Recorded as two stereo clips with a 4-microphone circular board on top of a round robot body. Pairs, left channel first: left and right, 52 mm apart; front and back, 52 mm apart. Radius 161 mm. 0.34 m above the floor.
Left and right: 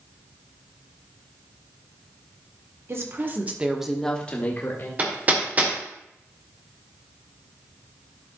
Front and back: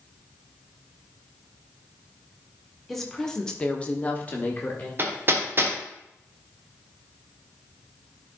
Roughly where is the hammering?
Behind right.